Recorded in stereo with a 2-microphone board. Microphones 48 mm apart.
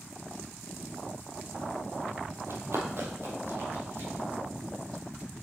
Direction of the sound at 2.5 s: 55° right (ahead or behind).